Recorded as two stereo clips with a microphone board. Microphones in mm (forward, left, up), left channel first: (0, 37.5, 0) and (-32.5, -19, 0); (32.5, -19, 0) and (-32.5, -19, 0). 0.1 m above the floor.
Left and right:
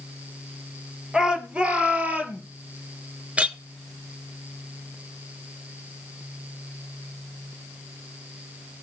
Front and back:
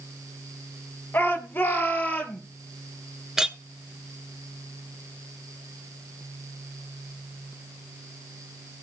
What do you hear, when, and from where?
1.1 s a shout: 45° right, 2.5 m; by 2.4 s 60° right, 2.5 m
3.4 s a clink: 115° right, 0.9 m